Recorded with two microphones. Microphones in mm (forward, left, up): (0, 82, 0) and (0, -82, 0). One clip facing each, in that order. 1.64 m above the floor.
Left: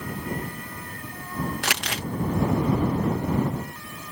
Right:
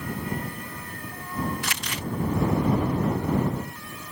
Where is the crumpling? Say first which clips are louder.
Left 3 dB; 65° left (ahead or behind).